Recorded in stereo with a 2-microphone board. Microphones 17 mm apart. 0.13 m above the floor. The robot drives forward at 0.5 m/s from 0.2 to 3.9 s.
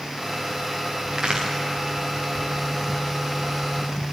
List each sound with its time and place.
1.1 s a crack: 35° right (ahead or behind), 4.5 m